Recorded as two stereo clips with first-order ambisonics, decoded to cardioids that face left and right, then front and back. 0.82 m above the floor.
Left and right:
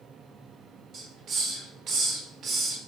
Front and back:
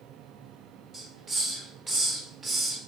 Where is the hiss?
110° right, 0.9 m.